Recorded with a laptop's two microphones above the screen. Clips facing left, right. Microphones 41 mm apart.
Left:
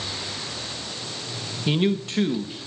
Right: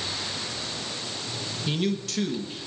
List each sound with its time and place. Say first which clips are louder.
1.7 s a man speaking: left 5 dB; 30° left (ahead or behind), 1.1 m